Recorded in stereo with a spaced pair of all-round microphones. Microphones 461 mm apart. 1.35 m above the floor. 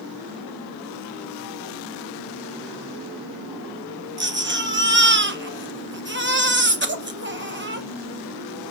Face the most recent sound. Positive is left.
turn(degrees=-25)  # may be behind; listen again after turning